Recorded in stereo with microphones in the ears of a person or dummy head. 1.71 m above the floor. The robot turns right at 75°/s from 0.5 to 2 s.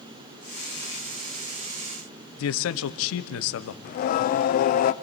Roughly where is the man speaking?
Left.